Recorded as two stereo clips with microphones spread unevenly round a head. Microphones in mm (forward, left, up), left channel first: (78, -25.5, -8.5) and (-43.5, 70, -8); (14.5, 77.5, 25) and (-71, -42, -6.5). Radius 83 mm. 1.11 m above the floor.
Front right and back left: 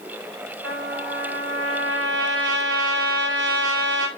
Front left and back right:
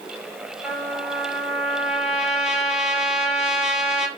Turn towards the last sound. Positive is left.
turn(degrees=150)